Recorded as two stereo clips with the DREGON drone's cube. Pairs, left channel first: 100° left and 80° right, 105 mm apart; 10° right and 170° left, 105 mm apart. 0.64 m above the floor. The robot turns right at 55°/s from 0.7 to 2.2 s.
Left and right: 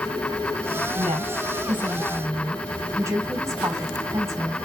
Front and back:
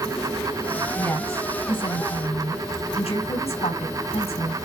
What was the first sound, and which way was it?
A woman speaking, 85° right.